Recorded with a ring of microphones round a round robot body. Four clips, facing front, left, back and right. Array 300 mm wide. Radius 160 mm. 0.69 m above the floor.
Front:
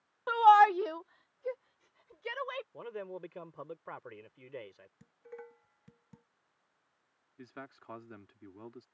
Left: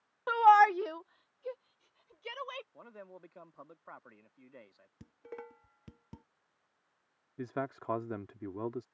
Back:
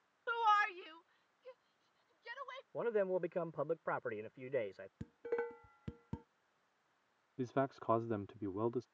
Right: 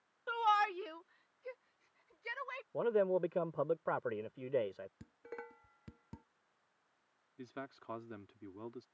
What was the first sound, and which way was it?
A shout, 60° left.